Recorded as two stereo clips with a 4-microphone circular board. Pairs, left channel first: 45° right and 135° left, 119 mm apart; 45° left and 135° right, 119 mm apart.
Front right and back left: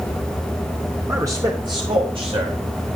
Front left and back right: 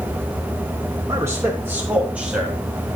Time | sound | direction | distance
1.1 | a man speaking | straight behind | 1.5 m